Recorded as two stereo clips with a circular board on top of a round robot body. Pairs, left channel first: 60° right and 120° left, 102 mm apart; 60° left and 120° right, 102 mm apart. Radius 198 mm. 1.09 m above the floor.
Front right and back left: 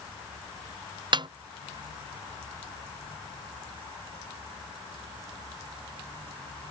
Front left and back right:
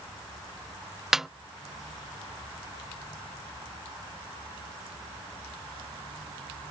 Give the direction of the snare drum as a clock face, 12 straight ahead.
7 o'clock.